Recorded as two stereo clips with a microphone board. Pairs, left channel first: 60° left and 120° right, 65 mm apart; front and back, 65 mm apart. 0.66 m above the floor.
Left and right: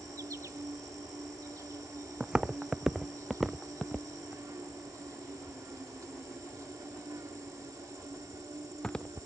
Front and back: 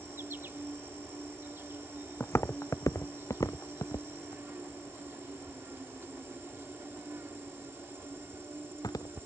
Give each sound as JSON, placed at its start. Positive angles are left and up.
{"t": 0.0, "sound": "an insect", "azimuth_deg": -130}
{"t": 2.2, "sound": "footsteps", "azimuth_deg": -50}